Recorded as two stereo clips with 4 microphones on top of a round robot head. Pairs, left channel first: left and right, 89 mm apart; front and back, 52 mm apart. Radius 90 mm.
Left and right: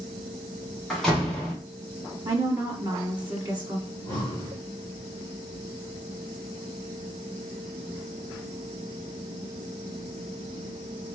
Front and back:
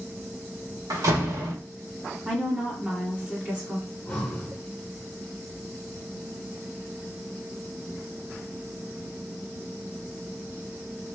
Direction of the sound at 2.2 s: 120° right.